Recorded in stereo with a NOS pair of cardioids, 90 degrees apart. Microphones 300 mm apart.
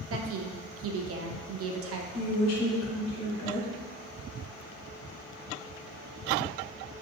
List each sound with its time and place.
0.1 s a woman speaking: 50° right, 0.6 m
2.1 s a woman speaking: 60° left, 1.1 m